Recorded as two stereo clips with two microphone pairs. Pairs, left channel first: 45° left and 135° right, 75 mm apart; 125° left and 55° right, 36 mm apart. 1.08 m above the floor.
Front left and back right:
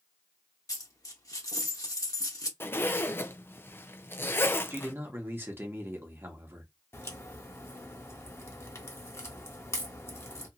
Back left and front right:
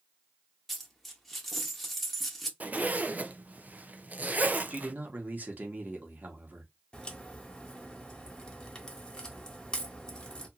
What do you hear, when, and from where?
0.7 s a dropped coin: 40° left, 0.9 m
2.6 s a zipper: 10° right, 0.5 m
4.7 s a man speaking: 80° right, 1.2 m
6.9 s a crack: 70° left, 1.1 m